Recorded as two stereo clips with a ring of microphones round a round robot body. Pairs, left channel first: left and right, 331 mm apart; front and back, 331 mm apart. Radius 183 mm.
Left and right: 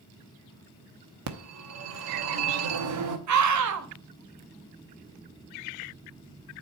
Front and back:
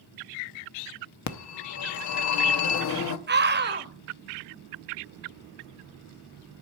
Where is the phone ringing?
40° right, 0.9 m.